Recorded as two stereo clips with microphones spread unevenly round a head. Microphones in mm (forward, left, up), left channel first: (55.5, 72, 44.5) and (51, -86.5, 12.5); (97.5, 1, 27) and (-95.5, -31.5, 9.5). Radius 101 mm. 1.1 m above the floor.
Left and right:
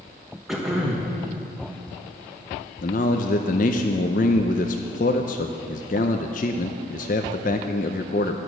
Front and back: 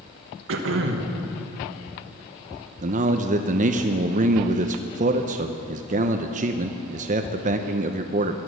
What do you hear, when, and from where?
0.5 s throat clearing: 175° right, 1.1 m
2.8 s a man speaking: 140° left, 0.6 m